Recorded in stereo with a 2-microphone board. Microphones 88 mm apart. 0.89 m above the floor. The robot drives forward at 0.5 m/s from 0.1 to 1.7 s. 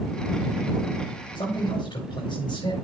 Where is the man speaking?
70° left (ahead or behind), 4.5 m.